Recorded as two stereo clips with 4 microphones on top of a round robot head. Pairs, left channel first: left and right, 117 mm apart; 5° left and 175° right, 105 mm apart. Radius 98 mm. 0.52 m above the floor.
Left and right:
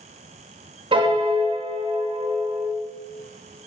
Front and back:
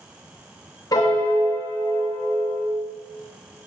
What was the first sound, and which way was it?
A piano, 55° right.